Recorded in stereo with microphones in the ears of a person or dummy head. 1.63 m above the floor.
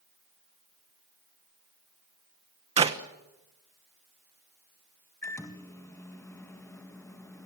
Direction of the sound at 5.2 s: 15° left (ahead or behind).